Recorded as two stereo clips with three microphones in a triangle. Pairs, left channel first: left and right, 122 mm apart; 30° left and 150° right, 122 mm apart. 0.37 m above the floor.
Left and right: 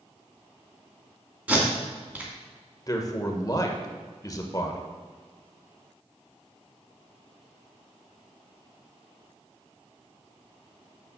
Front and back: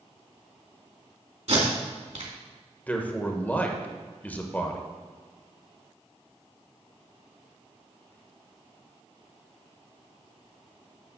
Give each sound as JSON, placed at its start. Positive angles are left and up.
{"t": 1.5, "sound": "tape being pulled", "azimuth_deg": -165, "distance_m": 2.5}
{"t": 2.9, "sound": "a man speaking", "azimuth_deg": 90, "distance_m": 1.1}